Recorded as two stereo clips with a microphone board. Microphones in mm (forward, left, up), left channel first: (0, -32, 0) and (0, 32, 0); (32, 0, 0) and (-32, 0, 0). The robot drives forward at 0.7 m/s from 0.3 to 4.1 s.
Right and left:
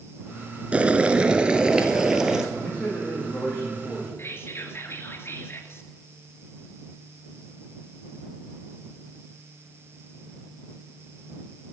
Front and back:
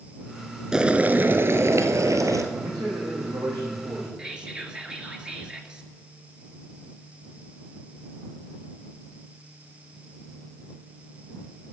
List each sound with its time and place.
0.7 s boiling: 120° left, 0.8 m; by 2.4 s 170° left, 1.6 m
2.5 s a man speaking: 165° right, 6.5 m
4.2 s whispering: 110° right, 2 m